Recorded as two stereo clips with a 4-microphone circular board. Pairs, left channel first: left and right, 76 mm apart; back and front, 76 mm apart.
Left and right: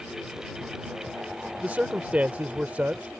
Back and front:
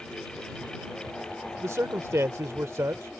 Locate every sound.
1.6 s a man speaking: 25° right